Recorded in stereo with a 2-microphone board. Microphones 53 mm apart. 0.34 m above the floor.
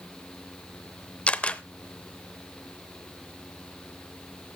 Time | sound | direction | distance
1.3 | a camera shutter | 25° left (ahead or behind) | 0.5 m